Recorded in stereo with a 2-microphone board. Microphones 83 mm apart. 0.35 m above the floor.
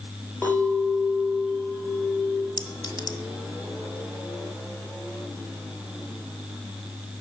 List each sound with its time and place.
0.4 s a clink: 30° left (ahead or behind), 4.5 m
2.6 s a clink: 60° left (ahead or behind), 1.5 m